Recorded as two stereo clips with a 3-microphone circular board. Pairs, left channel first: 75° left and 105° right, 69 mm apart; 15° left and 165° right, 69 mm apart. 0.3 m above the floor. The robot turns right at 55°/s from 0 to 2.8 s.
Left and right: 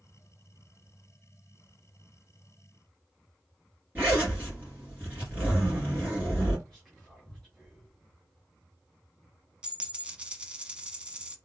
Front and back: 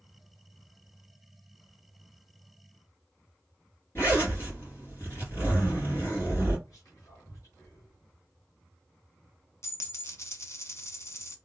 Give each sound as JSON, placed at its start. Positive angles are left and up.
{"t": 4.0, "sound": "a zipper", "azimuth_deg": -40, "distance_m": 2.5}
{"t": 6.7, "sound": "whispering", "azimuth_deg": -5, "distance_m": 1.9}
{"t": 9.6, "sound": "a dropped coin", "azimuth_deg": -30, "distance_m": 0.7}